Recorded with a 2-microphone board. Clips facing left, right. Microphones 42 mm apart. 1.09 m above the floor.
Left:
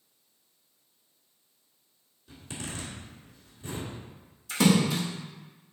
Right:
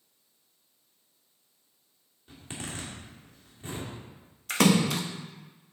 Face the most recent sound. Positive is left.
turn(degrees=-65)  # may be behind; listen again after turning